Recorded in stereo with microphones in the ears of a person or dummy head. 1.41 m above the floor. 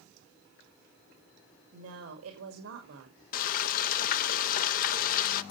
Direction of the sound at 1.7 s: 80° right.